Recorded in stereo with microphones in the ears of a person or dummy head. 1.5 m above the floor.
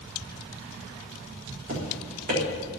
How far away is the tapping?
About 4 m.